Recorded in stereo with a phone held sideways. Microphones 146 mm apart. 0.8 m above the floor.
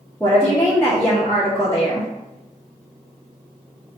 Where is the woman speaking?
20° left (ahead or behind), 0.8 m.